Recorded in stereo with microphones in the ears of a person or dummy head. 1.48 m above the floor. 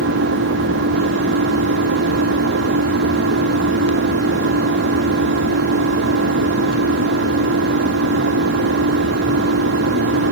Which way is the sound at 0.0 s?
60° right (ahead or behind).